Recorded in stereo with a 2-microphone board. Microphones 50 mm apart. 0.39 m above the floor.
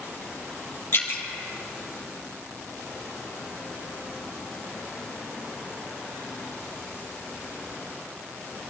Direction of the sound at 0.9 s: 55° left (ahead or behind).